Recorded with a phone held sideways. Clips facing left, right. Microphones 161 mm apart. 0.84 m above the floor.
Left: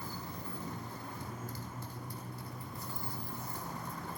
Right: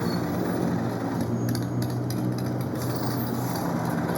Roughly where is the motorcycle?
Right.